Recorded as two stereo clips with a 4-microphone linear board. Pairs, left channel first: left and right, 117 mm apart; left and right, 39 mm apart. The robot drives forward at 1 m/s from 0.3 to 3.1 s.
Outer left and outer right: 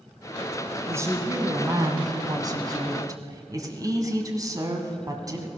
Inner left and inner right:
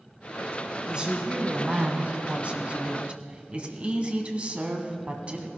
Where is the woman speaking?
25° right (ahead or behind), 2 m; by 5.5 s 30° right (ahead or behind), 1.7 m.